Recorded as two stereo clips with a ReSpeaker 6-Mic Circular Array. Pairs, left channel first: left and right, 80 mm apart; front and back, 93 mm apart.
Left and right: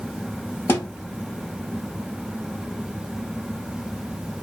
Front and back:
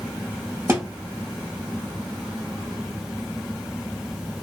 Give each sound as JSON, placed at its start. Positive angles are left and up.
{"t": 0.7, "sound": "a thud", "azimuth_deg": 130, "distance_m": 0.9}